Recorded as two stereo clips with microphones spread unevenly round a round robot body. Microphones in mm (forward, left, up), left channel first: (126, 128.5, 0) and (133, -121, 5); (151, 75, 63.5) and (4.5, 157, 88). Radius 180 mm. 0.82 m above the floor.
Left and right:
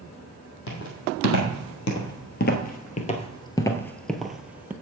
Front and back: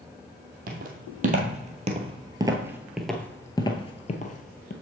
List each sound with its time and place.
0.7 s footsteps: 135° left, 1.7 m; by 4.7 s 10° right, 1.2 m